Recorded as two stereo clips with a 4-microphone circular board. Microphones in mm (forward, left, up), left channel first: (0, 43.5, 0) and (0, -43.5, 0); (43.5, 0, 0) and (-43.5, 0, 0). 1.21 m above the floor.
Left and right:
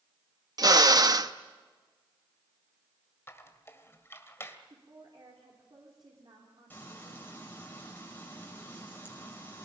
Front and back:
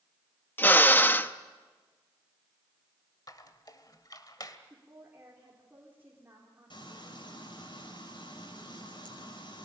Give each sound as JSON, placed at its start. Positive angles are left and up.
{"t": 0.6, "sound": "a drill", "azimuth_deg": -60, "distance_m": 0.8}
{"t": 3.3, "sound": "a squeak", "azimuth_deg": 30, "distance_m": 1.7}
{"t": 4.7, "sound": "a woman speaking", "azimuth_deg": -115, "distance_m": 4.0}
{"t": 6.7, "sound": "frying", "azimuth_deg": 20, "distance_m": 5.5}